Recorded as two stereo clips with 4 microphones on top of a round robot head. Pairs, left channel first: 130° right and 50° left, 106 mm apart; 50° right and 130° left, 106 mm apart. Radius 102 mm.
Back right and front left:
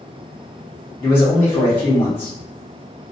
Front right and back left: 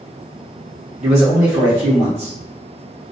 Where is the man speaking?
160° left, 0.7 m.